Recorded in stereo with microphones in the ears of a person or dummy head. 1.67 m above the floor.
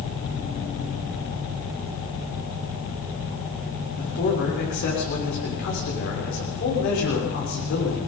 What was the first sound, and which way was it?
A man speaking, 70° left (ahead or behind).